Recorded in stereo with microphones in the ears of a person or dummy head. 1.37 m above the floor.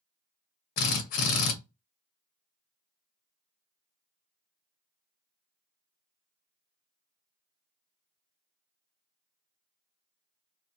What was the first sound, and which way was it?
A drill, 50° left (ahead or behind).